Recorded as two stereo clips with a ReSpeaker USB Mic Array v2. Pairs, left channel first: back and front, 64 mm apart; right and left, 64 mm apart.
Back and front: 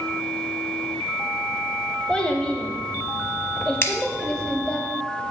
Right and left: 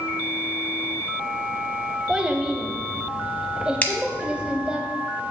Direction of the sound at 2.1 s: 135° left.